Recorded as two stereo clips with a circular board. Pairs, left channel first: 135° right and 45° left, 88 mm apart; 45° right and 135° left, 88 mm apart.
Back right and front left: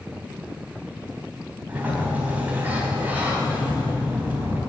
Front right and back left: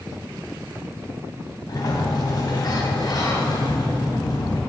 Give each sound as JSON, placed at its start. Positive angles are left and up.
{"t": 1.7, "sound": "a sliding door", "azimuth_deg": -20, "distance_m": 2.5}